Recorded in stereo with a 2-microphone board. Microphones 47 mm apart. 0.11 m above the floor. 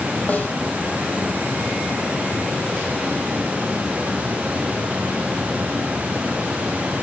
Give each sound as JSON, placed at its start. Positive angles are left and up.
{"t": 0.3, "sound": "a snare drum", "side_deg": 35, "distance_m": 4.5}